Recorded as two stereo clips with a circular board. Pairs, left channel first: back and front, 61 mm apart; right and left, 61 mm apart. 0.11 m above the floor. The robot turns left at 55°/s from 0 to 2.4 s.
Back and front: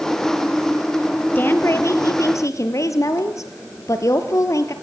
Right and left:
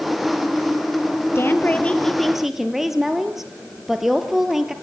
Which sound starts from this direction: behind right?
A woman speaking, at 1.4 s.